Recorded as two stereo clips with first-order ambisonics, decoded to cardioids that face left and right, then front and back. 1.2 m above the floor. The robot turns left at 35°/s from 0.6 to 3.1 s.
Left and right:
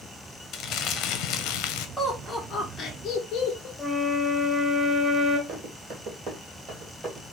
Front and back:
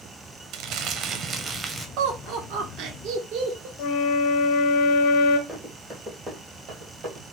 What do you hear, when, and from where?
0.5 s crumpling: 140° left, 0.5 m; by 1.9 s 100° left, 0.5 m
2.0 s laughter: 175° right, 1.1 m; by 3.7 s 145° left, 1.1 m
3.8 s a flute: straight ahead, 0.7 m
5.5 s running footsteps: 100° right, 1.7 m; by 7.3 s 170° right, 1.8 m